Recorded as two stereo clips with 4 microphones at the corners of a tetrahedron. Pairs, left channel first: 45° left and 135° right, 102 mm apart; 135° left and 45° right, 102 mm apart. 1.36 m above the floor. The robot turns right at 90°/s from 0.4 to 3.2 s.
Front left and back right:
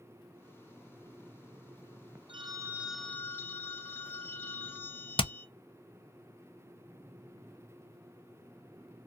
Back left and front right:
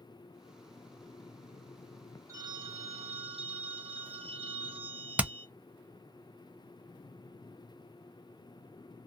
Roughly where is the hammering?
Ahead left.